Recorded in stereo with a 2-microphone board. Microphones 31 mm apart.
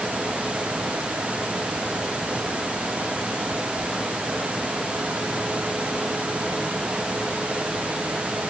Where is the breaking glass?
No breaking glass in this recording.